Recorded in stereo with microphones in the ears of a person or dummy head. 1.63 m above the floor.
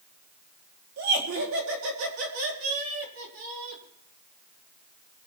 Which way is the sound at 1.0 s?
65° right (ahead or behind).